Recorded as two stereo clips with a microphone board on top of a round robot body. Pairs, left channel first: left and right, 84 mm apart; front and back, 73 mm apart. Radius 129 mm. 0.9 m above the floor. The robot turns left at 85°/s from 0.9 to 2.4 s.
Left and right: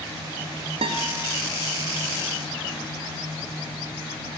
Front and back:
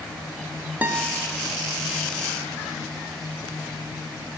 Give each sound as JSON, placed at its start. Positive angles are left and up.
{"t": 0.8, "sound": "a guitar", "azimuth_deg": -110, "distance_m": 0.8}